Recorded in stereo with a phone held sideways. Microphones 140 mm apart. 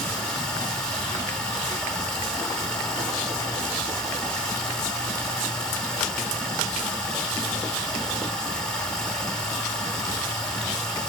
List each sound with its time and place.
0.0 s running water: 5° left (ahead or behind), 1.0 m